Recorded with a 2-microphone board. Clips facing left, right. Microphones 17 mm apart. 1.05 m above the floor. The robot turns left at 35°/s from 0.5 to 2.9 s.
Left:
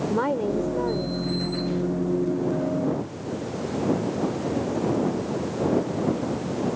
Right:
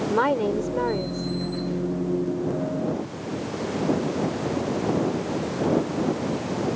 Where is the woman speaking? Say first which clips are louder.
Right 3 dB; 35° right (ahead or behind); by 1.3 s 65° right (ahead or behind).